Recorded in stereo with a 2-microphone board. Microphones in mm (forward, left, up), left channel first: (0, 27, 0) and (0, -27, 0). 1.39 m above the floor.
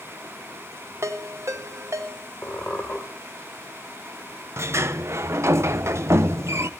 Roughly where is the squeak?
Left.